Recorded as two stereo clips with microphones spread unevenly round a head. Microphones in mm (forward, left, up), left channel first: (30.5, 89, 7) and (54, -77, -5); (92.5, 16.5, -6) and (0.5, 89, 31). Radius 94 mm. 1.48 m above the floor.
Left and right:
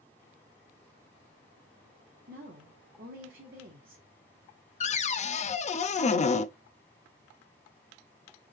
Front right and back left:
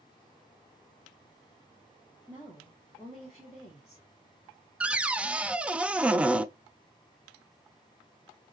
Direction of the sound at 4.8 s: 50° left.